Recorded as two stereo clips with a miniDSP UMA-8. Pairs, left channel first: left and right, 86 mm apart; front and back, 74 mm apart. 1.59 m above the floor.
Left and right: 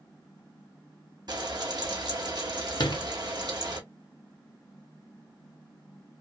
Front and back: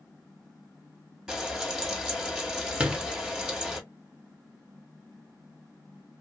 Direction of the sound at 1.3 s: 100° right.